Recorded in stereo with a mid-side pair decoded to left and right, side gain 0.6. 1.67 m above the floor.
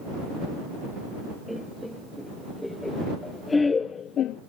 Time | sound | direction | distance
1.5 | laughter | straight ahead | ?